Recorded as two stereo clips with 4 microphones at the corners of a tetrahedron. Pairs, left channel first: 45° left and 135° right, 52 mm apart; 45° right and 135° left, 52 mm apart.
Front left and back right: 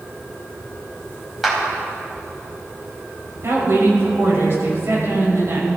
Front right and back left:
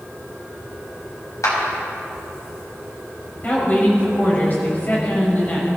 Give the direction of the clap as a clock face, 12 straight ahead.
2 o'clock.